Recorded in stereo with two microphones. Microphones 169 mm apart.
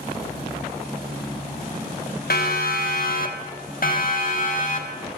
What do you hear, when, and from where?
2.3 s a siren: 75° left (ahead or behind), 3.5 m; by 5.1 s 55° left (ahead or behind), 5.5 m